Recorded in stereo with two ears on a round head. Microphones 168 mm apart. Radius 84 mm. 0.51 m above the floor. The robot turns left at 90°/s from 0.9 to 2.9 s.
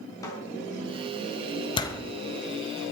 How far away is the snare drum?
About 3.5 m.